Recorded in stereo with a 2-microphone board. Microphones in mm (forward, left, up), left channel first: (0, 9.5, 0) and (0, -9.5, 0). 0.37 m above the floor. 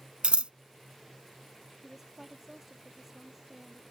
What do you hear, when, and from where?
0.2 s scissors: 75° right (ahead or behind)
1.8 s a woman speaking: 20° right (ahead or behind)